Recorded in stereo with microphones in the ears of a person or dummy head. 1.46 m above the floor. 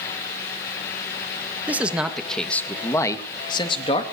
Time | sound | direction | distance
1.7 | a man speaking | 15° right (ahead or behind) | 1.6 m